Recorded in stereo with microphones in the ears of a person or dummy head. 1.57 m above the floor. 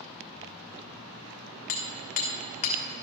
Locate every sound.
1.7 s hammering: 40° left (ahead or behind), 1.3 m